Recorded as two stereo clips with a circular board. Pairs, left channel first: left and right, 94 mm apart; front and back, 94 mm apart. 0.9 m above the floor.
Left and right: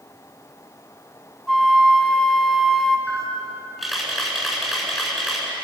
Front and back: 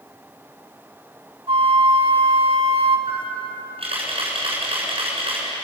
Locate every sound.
1.5 s a flute: straight behind, 1.9 m
3.1 s a camera shutter: straight behind, 8.5 m